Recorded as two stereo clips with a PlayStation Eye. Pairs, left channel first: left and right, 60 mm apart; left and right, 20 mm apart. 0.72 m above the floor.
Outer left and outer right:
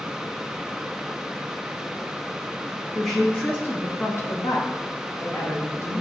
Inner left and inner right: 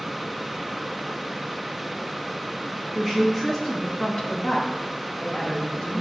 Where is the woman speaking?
10° left (ahead or behind), 1.1 m; by 6.0 s 45° left (ahead or behind), 2.5 m.